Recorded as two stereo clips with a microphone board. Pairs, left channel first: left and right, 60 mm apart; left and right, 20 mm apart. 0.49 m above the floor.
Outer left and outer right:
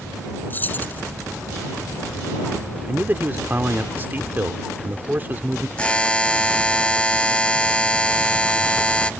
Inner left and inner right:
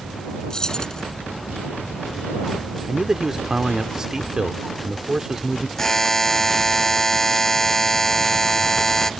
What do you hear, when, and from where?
0.5 s keys jangling: 35° left (ahead or behind)
2.8 s a man speaking: 35° right (ahead or behind)
5.8 s a buzzer: 20° left (ahead or behind)